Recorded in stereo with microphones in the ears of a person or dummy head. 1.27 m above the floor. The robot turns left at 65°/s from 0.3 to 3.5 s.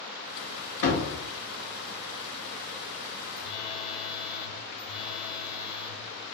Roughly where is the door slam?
Left.